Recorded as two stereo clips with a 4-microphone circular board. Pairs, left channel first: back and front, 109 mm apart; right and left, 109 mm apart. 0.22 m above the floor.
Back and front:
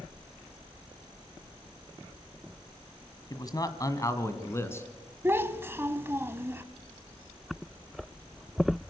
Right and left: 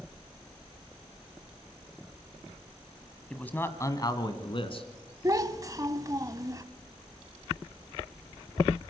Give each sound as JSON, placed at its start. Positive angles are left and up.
{"t": 3.3, "sound": "a man speaking", "azimuth_deg": -170, "distance_m": 1.6}
{"t": 5.2, "sound": "a child speaking", "azimuth_deg": 55, "distance_m": 1.0}